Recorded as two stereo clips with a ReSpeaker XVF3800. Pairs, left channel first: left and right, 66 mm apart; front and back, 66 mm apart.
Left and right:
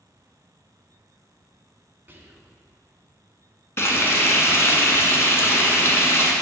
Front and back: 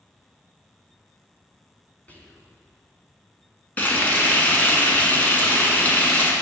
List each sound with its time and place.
2.1 s whispering: 50° right, 1.8 m
3.8 s frying: 55° left, 1.5 m